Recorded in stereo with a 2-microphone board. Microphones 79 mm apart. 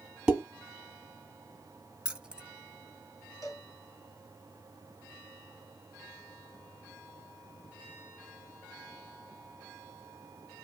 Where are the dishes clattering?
10° right (ahead or behind), 1.4 m.